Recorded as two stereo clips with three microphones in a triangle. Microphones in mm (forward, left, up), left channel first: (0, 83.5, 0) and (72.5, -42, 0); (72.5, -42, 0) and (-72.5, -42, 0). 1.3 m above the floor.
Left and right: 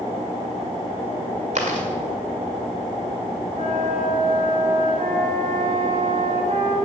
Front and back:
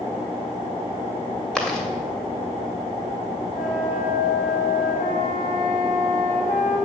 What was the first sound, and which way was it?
Chewing, 85° right.